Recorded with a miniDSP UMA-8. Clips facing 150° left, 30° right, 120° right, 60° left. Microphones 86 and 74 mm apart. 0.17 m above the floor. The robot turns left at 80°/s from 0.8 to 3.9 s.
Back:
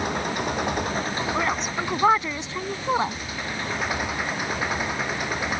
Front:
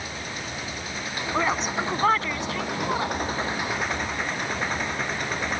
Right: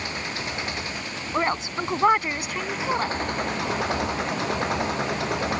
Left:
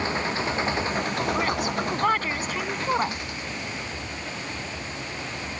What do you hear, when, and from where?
0.0 s an engine running: 120° left; by 5.6 s 130° right
1.3 s a woman speaking: 100° right; by 3.2 s 115° left